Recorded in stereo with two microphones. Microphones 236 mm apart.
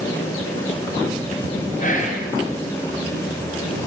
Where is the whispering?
35° left (ahead or behind), 0.9 m.